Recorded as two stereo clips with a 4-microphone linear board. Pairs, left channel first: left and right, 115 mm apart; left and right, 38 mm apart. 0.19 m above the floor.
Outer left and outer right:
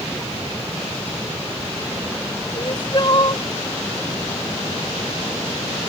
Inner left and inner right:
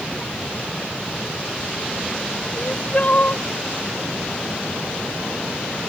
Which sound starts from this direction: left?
Crying, at 2.5 s.